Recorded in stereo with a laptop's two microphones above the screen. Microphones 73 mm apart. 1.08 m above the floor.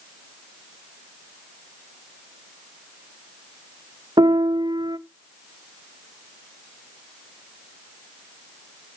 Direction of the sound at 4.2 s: 85° right.